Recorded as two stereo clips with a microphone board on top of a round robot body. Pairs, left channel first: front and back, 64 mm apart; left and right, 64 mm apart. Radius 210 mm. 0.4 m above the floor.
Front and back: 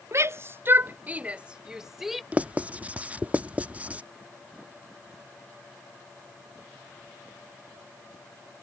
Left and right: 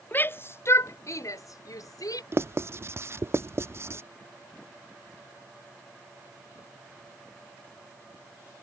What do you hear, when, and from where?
0.1 s a shout: 145° left; by 2.2 s 90° left
2.3 s writing: 120° right